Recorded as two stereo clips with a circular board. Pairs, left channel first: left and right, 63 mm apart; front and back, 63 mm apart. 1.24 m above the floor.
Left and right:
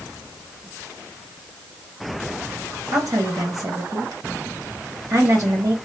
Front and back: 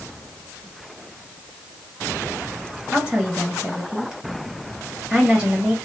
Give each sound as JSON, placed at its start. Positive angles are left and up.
{"t": 2.9, "sound": "a woman speaking", "azimuth_deg": -105, "distance_m": 1.4}